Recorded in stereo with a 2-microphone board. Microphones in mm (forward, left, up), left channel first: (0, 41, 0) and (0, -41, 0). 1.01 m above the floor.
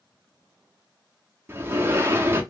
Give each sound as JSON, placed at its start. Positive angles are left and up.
{"t": 1.5, "sound": "a sliding door", "side_deg": -30, "distance_m": 0.7}